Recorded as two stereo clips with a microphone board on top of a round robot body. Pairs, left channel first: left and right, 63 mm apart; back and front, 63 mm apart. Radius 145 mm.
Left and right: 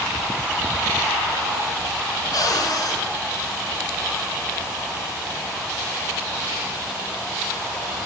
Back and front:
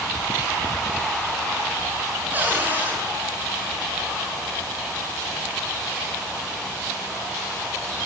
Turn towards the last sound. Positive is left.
turn(degrees=65)